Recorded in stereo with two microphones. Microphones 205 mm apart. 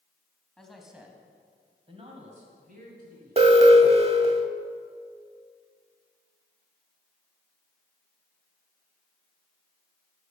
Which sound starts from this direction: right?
An alarm, at 3.4 s.